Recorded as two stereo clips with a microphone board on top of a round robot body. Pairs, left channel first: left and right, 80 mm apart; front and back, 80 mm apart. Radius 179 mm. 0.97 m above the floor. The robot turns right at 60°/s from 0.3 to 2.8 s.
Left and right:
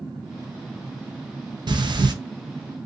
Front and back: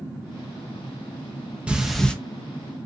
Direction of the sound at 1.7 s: 105° right.